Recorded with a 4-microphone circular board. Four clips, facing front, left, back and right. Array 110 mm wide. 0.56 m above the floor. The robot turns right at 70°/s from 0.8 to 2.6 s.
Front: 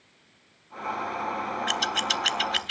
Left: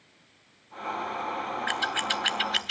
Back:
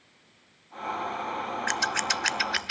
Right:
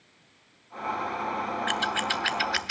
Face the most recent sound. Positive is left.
turn(degrees=-130)